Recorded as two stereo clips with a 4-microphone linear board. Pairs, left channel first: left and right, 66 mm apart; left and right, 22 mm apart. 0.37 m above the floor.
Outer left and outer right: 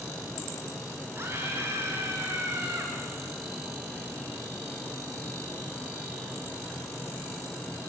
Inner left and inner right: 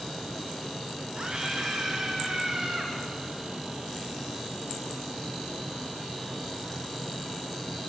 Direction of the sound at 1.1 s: 40° right (ahead or behind).